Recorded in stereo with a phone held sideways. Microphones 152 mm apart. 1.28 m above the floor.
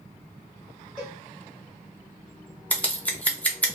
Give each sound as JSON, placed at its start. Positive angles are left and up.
{"t": 1.0, "sound": "a cowbell", "side_deg": -5, "distance_m": 1.0}
{"t": 2.7, "sound": "scissors", "side_deg": 10, "distance_m": 0.6}